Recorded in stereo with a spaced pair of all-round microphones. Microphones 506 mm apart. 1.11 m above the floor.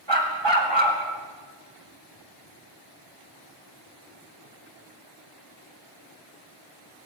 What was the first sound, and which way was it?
A dog barking, 55° right (ahead or behind).